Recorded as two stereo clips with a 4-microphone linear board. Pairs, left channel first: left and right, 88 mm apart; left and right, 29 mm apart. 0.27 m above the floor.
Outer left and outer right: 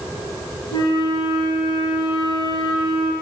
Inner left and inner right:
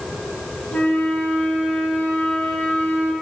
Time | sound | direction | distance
0.7 | a flute | 65° left (ahead or behind) | 2 m